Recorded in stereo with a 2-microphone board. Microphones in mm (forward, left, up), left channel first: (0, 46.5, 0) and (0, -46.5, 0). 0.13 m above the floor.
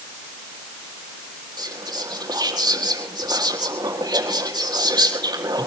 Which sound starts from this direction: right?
Whispering, at 1.6 s.